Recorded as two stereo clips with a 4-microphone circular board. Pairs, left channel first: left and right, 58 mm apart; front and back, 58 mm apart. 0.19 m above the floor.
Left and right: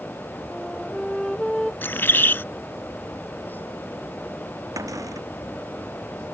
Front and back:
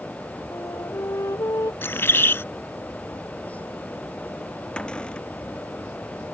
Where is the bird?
40° left.